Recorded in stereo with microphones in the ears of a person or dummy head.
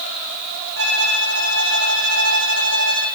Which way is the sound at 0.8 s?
80° right.